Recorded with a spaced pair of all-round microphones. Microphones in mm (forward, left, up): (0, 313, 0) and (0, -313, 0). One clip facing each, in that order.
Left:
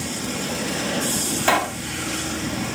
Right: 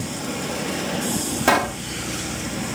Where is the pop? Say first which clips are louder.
Right 5 dB; 70° right (ahead or behind).